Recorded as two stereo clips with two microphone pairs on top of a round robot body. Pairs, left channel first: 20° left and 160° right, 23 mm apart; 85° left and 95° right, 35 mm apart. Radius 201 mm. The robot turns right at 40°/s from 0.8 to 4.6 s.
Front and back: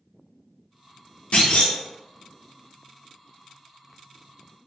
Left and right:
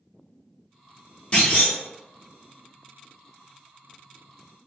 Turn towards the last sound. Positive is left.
turn(degrees=160)